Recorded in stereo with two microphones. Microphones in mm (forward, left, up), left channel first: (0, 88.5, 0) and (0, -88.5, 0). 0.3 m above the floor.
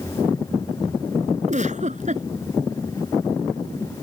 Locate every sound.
1.5 s a giggle: 45° right (ahead or behind)